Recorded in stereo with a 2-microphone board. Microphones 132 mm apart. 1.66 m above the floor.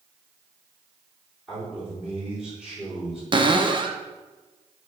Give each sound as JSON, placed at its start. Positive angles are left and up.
{"t": 1.5, "sound": "a man speaking", "side_deg": -5, "distance_m": 4.0}
{"t": 3.3, "sound": "a cupboard door", "side_deg": -35, "distance_m": 0.7}